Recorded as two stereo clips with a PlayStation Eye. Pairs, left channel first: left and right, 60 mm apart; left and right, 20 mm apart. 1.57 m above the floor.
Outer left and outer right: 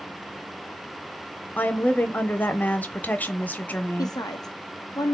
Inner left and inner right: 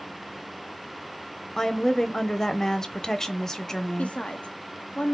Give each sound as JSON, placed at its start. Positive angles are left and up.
{"t": 1.6, "sound": "a woman speaking", "side_deg": 25, "distance_m": 0.7}
{"t": 4.0, "sound": "a woman speaking", "side_deg": 80, "distance_m": 1.0}